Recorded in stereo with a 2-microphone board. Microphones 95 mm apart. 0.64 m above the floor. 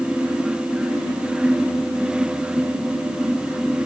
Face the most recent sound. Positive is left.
No sound to turn to.